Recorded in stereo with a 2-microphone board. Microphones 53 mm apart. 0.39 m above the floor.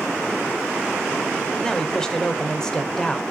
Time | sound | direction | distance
1.6 | a man speaking | 10° left (ahead or behind) | 1.0 m